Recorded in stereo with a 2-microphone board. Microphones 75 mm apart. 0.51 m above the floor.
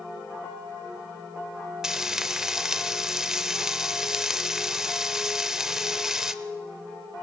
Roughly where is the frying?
Centre.